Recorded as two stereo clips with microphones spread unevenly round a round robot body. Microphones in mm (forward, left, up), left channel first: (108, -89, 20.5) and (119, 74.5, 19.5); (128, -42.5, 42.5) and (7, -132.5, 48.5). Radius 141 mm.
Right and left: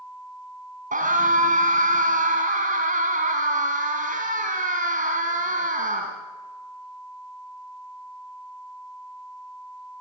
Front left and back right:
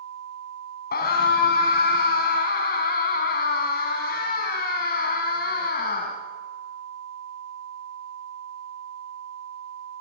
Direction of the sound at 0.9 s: 55° left.